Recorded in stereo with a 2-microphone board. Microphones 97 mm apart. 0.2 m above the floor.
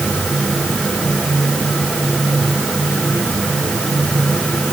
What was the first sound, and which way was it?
Only background noise.